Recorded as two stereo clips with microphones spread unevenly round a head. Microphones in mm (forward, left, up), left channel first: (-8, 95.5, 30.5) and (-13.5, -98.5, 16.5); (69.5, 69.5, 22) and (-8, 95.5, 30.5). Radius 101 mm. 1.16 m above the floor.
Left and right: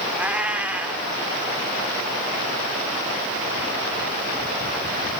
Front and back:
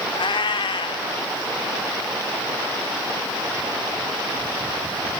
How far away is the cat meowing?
About 1.9 m.